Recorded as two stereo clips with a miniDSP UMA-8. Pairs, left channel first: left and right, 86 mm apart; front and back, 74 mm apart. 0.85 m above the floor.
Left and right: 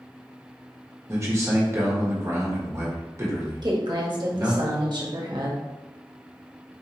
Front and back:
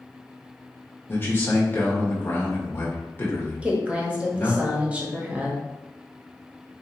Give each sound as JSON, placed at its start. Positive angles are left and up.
{"t": 1.1, "sound": "a man speaking", "azimuth_deg": -50, "distance_m": 1.2}
{"t": 3.6, "sound": "a woman speaking", "azimuth_deg": -110, "distance_m": 1.1}